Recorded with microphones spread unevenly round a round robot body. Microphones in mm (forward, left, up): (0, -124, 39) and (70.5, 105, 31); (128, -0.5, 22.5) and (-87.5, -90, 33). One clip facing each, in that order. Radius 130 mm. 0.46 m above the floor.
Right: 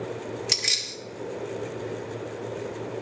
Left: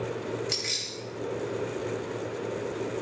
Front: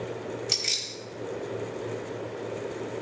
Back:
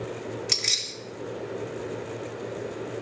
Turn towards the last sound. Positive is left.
turn(degrees=-100)